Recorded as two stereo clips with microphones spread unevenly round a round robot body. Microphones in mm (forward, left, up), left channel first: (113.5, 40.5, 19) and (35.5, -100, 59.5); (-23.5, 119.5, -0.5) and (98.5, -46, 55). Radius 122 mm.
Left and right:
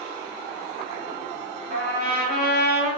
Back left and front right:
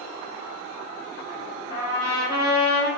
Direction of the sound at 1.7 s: 155° right.